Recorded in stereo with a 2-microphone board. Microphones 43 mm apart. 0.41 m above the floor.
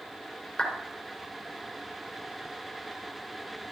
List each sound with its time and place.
0.6 s a clap: 20° left (ahead or behind), 3.5 m